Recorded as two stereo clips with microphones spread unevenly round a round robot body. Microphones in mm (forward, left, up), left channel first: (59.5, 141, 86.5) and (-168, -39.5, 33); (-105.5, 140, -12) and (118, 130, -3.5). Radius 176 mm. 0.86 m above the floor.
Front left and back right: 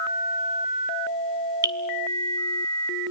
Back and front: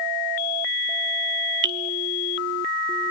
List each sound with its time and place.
1.6 s dripping: 60° right, 0.8 m